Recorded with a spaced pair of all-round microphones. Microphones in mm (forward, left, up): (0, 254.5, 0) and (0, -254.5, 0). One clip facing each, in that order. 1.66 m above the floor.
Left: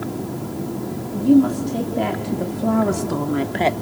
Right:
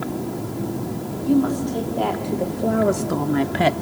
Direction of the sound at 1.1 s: 50° left (ahead or behind).